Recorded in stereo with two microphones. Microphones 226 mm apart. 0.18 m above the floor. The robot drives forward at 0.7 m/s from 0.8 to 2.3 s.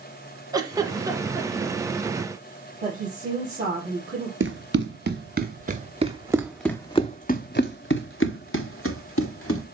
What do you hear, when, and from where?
0.5 s a giggle: 15° right (ahead or behind), 1.1 m; by 1.7 s 10° right (ahead or behind), 1.5 m
2.8 s a woman speaking: 30° right (ahead or behind), 4 m
4.4 s running footsteps: 60° right (ahead or behind), 2.0 m; by 9.7 s 80° left, 2.5 m